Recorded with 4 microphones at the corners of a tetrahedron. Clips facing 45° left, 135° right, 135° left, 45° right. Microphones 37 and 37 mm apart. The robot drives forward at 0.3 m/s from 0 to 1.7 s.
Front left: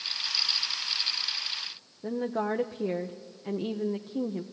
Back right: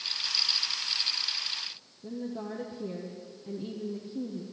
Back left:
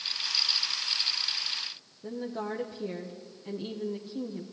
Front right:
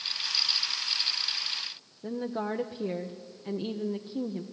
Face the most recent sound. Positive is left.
turn(degrees=25)